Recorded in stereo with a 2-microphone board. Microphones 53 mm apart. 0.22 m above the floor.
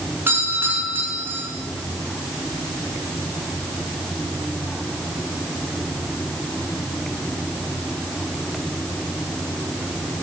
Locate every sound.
0.3 s a doorbell: 40° right (ahead or behind), 4 m